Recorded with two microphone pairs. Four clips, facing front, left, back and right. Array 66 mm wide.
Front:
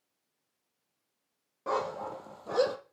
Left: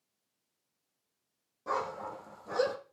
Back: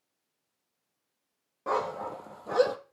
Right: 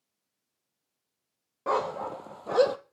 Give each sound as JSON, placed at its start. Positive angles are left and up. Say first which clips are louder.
{"t": 1.7, "sound": "a dog barking", "louder": "right 6 dB, back 2 dB", "azimuth_deg": -95, "distance_m": 1.5}